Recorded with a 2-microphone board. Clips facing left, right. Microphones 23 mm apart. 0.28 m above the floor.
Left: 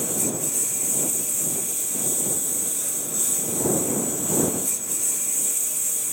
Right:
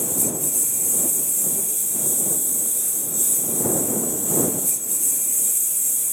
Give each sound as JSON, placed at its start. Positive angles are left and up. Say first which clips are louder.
{"t": 0.0, "sound": "a lawn mower", "louder": "right 1 dB", "side_deg": 15}